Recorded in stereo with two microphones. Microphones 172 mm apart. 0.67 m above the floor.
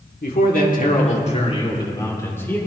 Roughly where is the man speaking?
Left.